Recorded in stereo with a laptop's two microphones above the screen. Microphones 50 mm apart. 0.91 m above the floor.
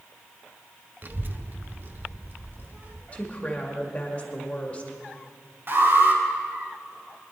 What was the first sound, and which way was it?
A child speaking, 40° right (ahead or behind).